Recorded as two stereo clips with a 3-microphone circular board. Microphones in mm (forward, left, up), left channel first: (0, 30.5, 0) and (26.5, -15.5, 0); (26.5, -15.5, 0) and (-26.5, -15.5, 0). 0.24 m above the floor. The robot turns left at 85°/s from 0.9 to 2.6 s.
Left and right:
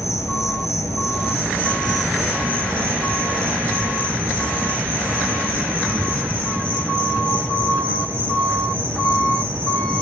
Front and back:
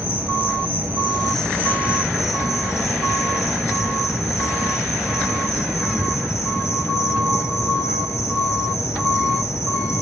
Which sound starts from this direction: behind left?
An insect, at 0.0 s.